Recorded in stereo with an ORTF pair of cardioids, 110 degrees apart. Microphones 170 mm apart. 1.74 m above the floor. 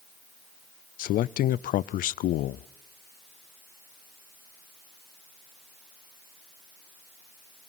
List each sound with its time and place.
1.0 s a man speaking: 60° left, 0.5 m